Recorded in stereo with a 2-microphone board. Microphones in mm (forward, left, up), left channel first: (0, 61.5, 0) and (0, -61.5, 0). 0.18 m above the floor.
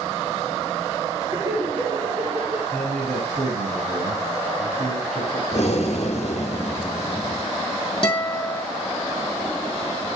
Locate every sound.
1.3 s laughter: 25° right (ahead or behind), 1.3 m; by 2.6 s 55° right (ahead or behind), 2.5 m
2.7 s a man speaking: 65° right (ahead or behind), 3.5 m
5.5 s breathing: 60° left (ahead or behind), 1.0 m
8.0 s a guitar: 40° left (ahead or behind), 2 m